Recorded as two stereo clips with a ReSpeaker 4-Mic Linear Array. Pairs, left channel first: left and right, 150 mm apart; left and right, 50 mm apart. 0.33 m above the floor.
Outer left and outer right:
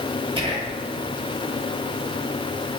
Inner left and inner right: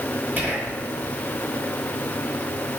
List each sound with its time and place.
0.4 s whispering: 35° right (ahead or behind), 1.9 m